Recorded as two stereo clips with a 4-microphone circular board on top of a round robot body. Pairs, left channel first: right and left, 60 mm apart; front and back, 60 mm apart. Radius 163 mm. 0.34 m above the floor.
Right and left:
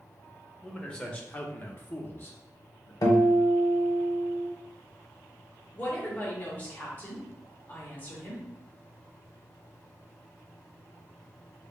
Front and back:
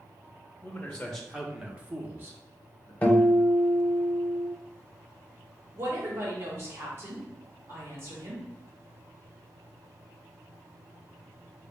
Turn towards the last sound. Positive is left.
turn(degrees=-145)